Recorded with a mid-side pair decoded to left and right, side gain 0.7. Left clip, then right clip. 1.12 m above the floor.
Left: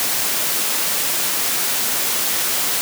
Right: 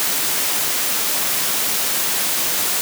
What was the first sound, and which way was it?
Only background noise.